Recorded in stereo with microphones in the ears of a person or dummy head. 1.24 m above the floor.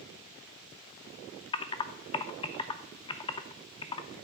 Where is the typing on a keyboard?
25° left (ahead or behind), 0.5 m.